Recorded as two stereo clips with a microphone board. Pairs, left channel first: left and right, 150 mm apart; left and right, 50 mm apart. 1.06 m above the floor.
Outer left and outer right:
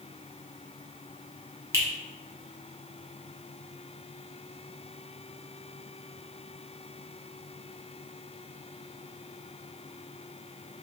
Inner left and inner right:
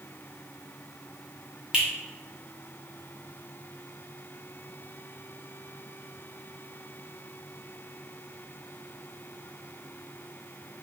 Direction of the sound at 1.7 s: 20° right (ahead or behind).